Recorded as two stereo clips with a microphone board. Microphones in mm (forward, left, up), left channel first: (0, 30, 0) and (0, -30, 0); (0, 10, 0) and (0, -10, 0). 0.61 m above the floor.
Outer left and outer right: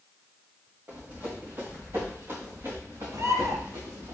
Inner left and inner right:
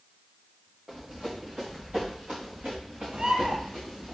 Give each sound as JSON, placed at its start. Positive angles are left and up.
{"t": 0.9, "sound": "running footsteps", "side_deg": -40, "distance_m": 4.5}
{"t": 3.1, "sound": "a bird", "side_deg": -65, "distance_m": 1.2}